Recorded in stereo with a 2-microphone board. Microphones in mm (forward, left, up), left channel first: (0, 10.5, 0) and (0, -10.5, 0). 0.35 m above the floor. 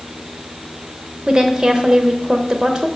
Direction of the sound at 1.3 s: 30° right (ahead or behind).